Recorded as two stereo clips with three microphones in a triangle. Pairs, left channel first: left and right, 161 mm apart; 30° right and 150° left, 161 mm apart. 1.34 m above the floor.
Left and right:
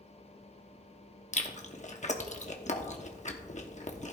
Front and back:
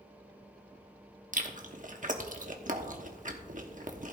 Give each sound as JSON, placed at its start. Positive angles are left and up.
{"t": 1.3, "sound": "chewing", "azimuth_deg": 125, "distance_m": 1.0}